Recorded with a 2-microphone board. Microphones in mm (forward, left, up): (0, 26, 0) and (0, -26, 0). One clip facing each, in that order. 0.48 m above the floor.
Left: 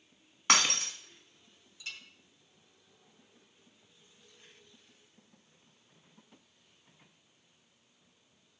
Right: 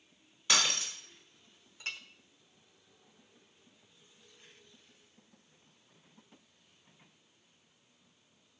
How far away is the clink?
About 0.9 m.